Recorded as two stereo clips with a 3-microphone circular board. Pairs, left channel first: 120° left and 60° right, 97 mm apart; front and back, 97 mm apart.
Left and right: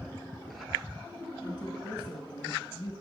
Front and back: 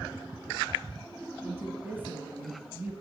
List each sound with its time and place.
1.4 s a woman speaking: 120° left, 1.9 m